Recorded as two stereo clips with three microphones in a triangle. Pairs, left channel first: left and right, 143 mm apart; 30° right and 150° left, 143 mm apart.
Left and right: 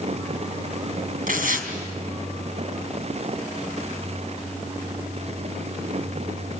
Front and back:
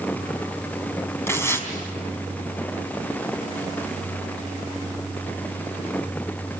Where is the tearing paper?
105° right, 3.5 m.